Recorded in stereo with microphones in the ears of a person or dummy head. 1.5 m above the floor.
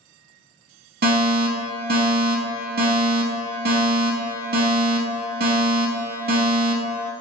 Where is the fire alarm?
45° right (ahead or behind), 0.8 m.